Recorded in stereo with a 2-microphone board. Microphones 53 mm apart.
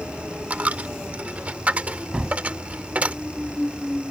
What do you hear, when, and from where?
0.5 s a dropped coin: 25° right (ahead or behind)
2.1 s a gunshot: 15° right (ahead or behind)